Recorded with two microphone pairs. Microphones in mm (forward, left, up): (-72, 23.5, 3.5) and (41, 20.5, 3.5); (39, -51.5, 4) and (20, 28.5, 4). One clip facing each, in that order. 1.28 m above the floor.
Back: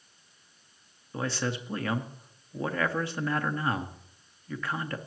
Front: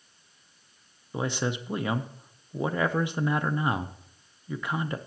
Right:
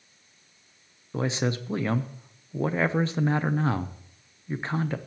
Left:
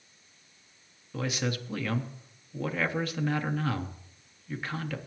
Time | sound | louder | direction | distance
1.1 | a man speaking | front 2 dB, right 5 dB | 60° right | 0.6 m